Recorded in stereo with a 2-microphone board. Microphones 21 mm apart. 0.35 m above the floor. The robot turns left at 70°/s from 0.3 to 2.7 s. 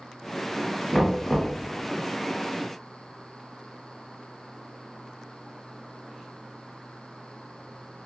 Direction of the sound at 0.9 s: 175° right.